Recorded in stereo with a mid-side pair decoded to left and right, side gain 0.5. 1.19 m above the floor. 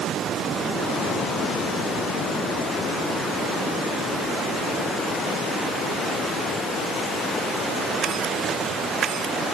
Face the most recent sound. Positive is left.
No sound to turn to.